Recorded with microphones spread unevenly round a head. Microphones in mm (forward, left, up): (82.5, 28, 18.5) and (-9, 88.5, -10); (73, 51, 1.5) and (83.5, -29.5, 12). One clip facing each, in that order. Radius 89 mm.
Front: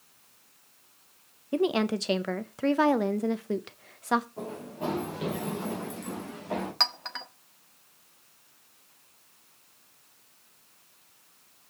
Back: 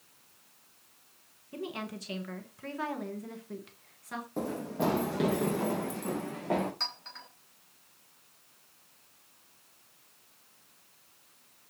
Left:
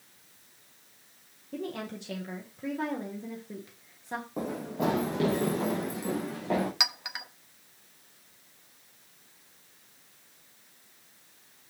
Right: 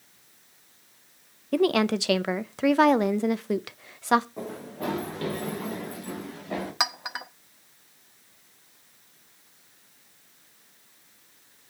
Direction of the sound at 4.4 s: 155° left.